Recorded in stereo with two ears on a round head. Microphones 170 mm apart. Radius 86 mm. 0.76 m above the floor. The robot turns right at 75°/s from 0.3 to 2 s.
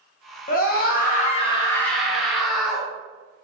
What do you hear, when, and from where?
0.5 s a scream: 65° left, 0.9 m; by 2.9 s straight behind, 0.9 m